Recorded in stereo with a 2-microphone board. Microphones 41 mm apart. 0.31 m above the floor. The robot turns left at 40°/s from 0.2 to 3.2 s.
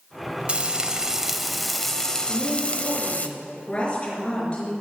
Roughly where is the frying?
Behind right.